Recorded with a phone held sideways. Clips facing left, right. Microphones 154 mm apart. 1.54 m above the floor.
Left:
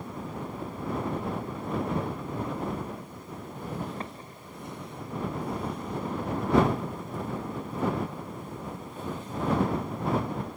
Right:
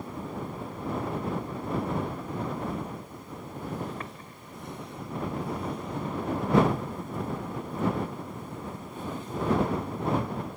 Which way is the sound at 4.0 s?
30° left (ahead or behind).